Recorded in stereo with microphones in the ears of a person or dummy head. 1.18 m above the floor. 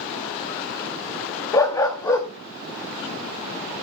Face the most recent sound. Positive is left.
turn(degrees=10)  # may be behind; listen again after turning